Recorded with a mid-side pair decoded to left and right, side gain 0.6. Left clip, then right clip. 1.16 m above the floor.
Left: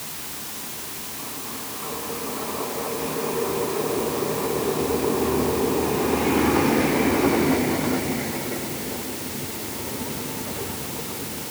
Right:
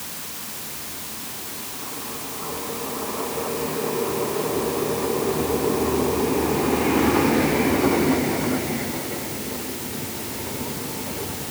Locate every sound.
Only background noise.